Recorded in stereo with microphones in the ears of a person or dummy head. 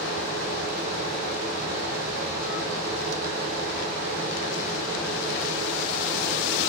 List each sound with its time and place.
0.0 s a fan: 55° right (ahead or behind), 3.5 m